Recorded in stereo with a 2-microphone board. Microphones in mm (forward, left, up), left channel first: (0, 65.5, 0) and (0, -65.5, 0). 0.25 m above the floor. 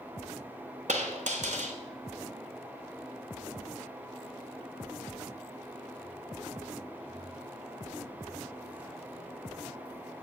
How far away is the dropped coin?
About 1.4 m.